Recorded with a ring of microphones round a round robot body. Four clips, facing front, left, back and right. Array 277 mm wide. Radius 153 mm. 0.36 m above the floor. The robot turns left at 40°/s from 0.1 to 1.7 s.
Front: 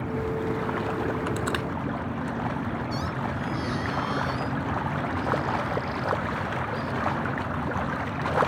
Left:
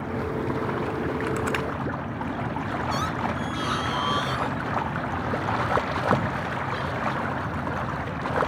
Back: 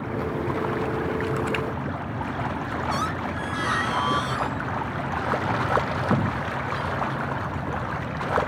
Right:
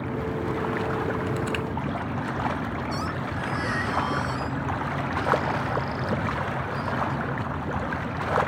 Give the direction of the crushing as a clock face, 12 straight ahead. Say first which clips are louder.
Left 1 dB, back 2 dB; 10 o'clock.